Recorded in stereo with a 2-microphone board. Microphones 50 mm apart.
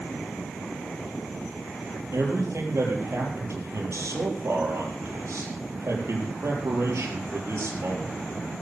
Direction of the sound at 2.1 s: 75° right (ahead or behind).